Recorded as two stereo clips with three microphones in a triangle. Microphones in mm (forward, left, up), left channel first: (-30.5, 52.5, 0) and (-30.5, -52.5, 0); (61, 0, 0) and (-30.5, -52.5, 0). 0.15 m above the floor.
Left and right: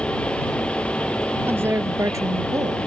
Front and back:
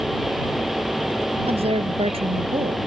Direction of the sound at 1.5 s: 155° right.